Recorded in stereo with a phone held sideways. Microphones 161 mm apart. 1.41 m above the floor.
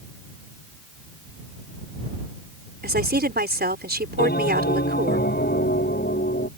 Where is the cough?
I don't hear a cough.